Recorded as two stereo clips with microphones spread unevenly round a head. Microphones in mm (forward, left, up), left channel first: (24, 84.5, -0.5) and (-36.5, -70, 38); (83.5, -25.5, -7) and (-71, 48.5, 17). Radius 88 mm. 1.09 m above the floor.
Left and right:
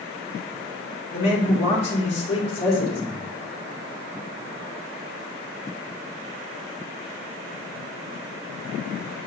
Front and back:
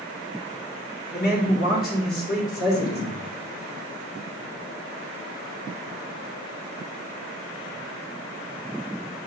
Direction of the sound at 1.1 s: 10° left.